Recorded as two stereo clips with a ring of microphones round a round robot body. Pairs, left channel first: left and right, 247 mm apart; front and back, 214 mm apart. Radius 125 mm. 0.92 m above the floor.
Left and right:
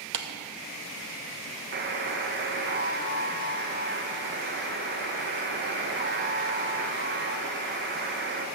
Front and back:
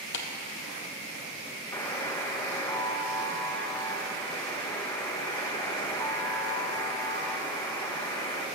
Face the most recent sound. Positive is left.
turn(degrees=-75)